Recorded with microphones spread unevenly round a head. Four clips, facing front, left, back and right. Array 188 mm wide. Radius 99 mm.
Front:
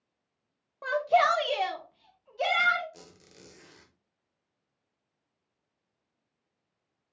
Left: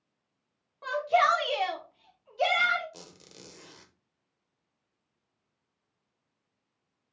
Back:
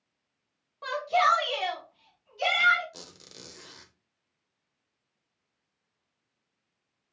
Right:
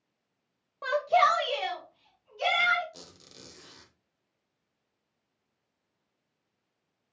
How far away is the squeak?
About 0.6 m.